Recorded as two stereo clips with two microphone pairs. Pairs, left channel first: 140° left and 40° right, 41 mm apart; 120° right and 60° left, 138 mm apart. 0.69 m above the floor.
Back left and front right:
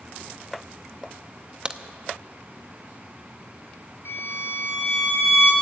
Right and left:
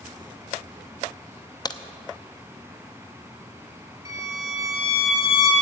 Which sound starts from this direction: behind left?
A violin, at 4.0 s.